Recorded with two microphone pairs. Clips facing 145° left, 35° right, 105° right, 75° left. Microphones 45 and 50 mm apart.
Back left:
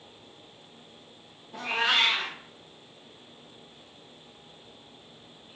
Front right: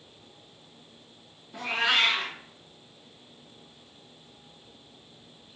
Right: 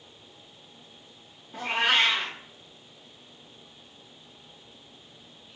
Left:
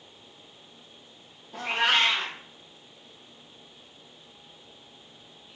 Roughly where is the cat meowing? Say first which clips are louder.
Even, even; left.